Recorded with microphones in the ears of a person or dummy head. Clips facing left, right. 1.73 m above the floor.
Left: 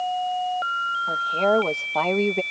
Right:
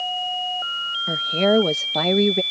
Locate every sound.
1.1 s a woman speaking: 30° right (ahead or behind); by 2.4 s 10° right (ahead or behind)